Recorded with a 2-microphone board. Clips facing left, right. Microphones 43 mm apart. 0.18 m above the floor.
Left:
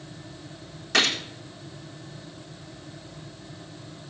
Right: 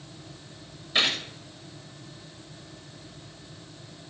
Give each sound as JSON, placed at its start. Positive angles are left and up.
{"t": 0.9, "sound": "a gunshot", "side_deg": 85, "distance_m": 3.5}